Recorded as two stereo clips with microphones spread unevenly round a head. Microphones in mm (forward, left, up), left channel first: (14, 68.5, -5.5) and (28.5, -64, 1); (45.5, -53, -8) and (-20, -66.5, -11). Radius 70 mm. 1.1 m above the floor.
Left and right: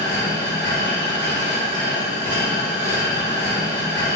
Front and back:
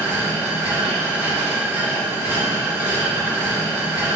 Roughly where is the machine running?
Right.